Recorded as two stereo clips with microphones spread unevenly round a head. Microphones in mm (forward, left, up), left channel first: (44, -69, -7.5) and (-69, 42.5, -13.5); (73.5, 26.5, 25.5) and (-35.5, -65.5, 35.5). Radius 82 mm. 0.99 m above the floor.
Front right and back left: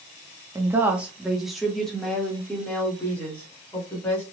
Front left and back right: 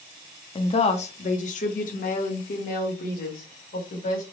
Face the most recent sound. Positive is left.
turn(degrees=35)